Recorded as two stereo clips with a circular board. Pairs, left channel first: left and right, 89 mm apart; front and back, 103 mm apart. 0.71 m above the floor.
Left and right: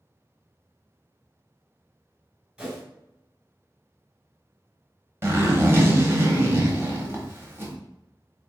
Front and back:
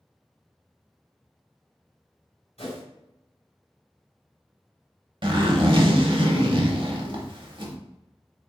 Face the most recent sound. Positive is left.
turn(degrees=-150)